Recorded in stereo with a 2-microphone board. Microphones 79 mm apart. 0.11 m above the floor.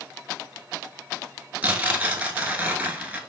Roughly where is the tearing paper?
Centre.